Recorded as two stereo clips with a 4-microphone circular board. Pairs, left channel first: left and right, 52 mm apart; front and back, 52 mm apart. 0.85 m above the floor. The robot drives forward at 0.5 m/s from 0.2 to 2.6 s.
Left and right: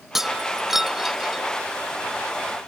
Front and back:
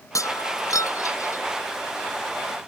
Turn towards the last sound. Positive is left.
turn(degrees=-10)